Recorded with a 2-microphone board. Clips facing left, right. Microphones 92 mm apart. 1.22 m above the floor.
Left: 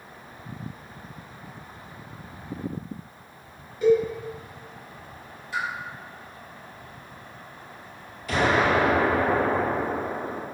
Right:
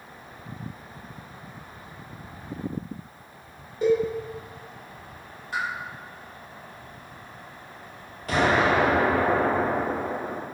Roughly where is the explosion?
Right.